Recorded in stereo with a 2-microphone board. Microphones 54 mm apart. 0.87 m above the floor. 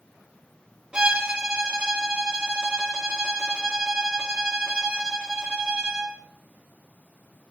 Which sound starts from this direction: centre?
A violin, at 0.9 s.